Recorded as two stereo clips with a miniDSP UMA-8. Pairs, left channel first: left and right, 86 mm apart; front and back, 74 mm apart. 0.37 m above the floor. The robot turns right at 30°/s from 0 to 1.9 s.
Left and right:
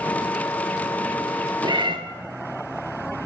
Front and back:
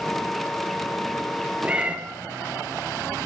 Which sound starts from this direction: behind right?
A cat meowing, at 1.6 s.